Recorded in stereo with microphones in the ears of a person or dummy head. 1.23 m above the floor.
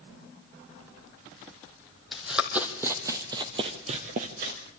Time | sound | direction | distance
2.1 | running footsteps | 5° right (ahead or behind) | 3 m